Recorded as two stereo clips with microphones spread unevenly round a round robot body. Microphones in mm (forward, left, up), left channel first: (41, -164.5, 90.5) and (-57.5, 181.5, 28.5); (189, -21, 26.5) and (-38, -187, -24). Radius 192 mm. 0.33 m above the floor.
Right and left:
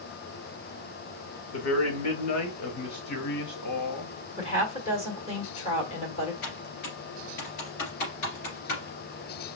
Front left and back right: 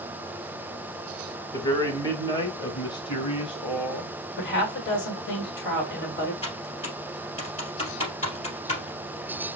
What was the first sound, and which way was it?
A man speaking, 45° right.